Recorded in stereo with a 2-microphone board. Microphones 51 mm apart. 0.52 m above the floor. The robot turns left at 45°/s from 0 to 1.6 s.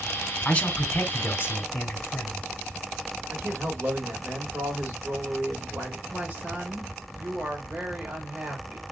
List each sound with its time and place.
0.5 s a man speaking: 160° left, 1.3 m; by 2.4 s 105° left, 1.3 m
3.3 s a man speaking: 45° right (ahead or behind), 1.7 m
6.1 s a woman speaking: 30° right (ahead or behind), 1.8 m